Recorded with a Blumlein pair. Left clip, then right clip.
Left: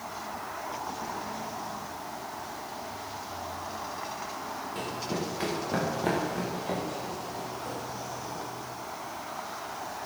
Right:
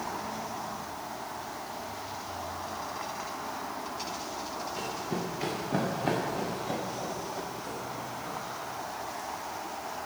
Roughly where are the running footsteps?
Ahead left.